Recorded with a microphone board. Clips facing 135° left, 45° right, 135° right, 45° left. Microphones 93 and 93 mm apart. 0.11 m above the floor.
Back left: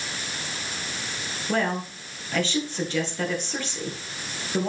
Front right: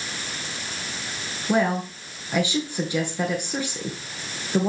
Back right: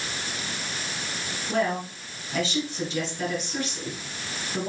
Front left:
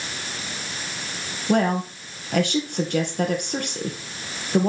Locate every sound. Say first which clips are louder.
1.5 s a woman speaking: front right 4 dB, front left 5 dB; 30° left, 2 m